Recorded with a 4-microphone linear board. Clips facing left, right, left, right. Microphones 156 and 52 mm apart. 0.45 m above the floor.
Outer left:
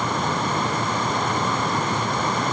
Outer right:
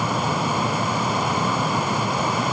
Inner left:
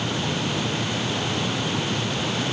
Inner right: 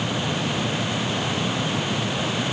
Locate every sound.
Only background noise.